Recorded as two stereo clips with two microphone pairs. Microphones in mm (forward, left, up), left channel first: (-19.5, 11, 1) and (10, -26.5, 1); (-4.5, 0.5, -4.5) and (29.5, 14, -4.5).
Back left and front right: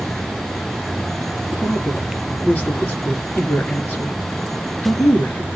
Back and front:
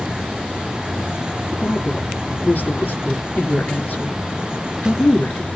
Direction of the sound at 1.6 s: 170° left.